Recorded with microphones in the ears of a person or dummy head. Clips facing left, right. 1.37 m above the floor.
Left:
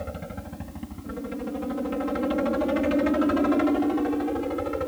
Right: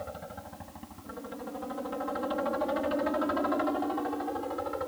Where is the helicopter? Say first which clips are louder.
Left 5 dB; 30° left (ahead or behind).